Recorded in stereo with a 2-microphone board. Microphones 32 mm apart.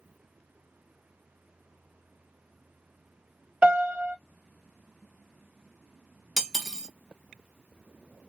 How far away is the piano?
About 1.6 m.